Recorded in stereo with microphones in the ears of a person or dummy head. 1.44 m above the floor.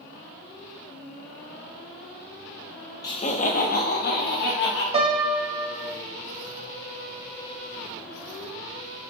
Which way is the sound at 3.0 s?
20° left (ahead or behind).